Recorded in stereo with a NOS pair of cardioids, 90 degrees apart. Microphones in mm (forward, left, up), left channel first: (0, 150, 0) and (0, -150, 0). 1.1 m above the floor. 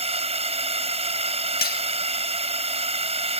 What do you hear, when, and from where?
0.0 s a drone: 20° right
1.6 s cutlery clinking: 30° left